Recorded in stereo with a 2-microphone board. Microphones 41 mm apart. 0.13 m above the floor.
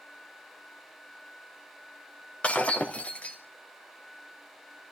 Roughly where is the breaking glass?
Left.